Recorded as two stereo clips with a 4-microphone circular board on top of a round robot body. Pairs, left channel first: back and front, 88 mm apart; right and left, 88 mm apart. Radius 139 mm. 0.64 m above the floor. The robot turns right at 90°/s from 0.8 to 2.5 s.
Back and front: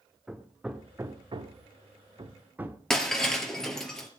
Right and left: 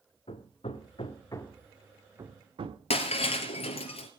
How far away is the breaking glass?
About 2.5 m.